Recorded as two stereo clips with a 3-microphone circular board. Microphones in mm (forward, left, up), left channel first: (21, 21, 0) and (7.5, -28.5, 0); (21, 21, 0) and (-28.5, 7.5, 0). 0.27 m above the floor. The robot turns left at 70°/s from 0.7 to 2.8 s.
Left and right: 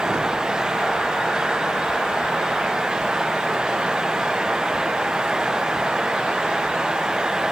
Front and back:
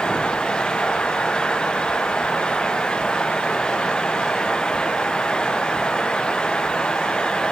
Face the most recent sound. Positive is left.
No sound to turn to.